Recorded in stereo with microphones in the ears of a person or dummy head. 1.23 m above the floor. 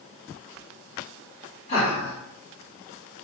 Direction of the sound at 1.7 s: 35° left (ahead or behind).